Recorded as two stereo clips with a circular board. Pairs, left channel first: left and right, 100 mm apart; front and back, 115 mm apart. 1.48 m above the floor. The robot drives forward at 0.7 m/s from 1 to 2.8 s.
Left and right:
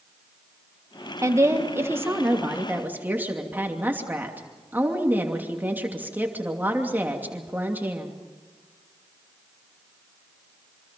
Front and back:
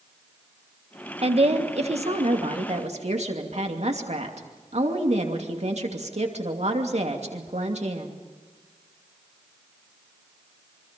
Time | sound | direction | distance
1.2 | a woman speaking | 150° right | 1.6 m